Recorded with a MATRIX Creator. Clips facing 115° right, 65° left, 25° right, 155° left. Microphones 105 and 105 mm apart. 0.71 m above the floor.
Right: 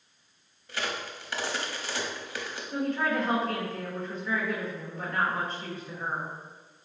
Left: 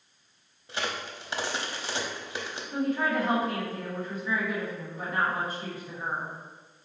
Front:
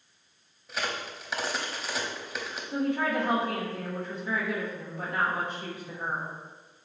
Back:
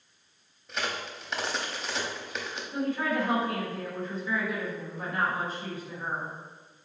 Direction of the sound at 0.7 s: 55° left.